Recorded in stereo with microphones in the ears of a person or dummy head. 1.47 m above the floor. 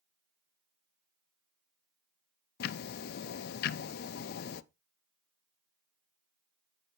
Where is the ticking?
55° left (ahead or behind), 0.6 m.